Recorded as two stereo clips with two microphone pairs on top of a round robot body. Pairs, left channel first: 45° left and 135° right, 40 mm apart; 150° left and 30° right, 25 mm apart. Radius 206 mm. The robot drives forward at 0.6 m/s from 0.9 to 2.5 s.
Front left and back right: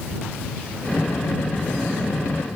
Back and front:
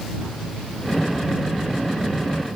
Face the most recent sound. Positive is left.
No sound to turn to.